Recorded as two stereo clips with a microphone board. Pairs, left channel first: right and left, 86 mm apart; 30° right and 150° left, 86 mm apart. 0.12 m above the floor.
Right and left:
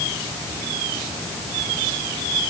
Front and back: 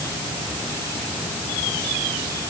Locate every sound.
Only background noise.